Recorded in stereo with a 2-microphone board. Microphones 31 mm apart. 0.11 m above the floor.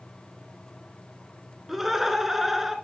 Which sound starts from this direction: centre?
Laughter, at 1.7 s.